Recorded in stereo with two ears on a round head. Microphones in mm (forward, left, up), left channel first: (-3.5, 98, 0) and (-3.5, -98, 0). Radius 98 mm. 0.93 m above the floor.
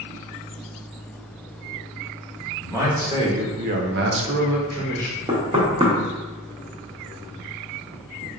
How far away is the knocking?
About 1.1 m.